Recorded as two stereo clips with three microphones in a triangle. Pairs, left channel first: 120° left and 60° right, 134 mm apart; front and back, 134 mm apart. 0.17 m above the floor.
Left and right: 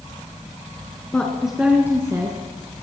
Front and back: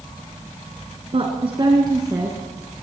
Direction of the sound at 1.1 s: 160° right.